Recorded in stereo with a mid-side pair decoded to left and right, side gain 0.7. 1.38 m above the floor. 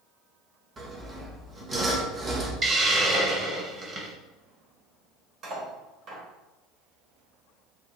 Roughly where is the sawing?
Ahead right.